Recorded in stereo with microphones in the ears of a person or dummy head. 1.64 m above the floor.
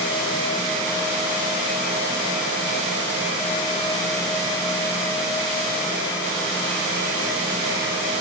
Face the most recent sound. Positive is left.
No sound to turn to.